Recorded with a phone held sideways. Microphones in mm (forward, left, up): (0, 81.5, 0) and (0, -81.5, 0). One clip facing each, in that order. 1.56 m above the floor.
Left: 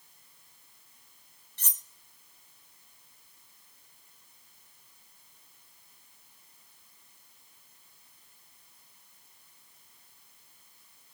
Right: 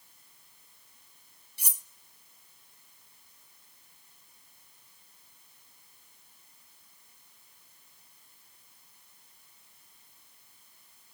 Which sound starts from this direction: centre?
Cutlery clinking, at 1.6 s.